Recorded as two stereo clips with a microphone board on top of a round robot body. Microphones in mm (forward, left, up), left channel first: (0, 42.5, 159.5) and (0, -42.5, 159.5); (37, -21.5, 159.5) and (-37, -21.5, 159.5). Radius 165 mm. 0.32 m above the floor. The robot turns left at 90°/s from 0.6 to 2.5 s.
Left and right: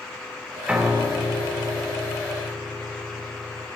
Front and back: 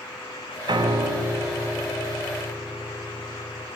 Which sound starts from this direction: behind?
A piano, at 0.7 s.